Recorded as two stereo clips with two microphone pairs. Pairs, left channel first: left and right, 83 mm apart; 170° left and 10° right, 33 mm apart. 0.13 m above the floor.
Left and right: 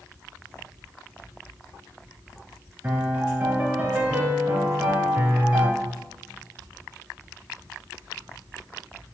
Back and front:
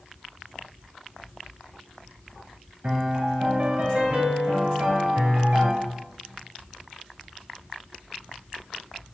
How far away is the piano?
About 0.8 m.